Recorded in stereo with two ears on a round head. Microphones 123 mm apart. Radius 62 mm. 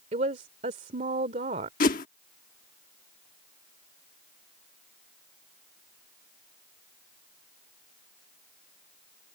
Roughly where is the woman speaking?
Right.